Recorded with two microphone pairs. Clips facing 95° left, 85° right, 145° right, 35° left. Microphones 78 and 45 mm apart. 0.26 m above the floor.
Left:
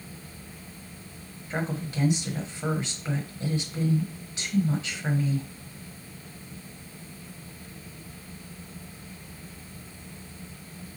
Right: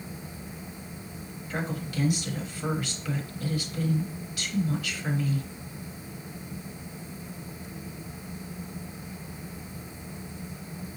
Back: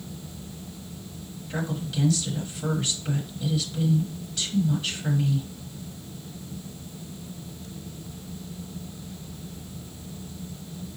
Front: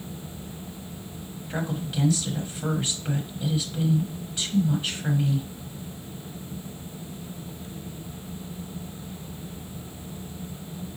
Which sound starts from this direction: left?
A woman speaking, at 1.5 s.